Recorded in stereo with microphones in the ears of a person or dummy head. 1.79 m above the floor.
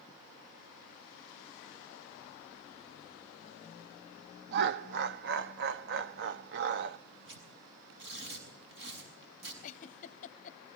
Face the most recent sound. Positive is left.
turn(degrees=40)  # may be behind; listen again after turning